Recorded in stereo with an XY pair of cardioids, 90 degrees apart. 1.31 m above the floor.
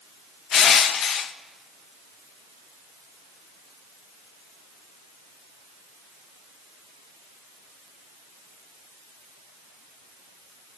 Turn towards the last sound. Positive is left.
turn(degrees=70)